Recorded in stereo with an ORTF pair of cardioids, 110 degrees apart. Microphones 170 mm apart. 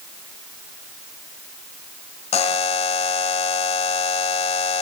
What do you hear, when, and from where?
2.3 s a buzzer: 40° left, 0.8 m